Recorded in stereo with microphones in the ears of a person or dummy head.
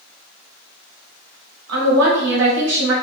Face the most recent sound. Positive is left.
turn(degrees=-70)  # may be behind; listen again after turning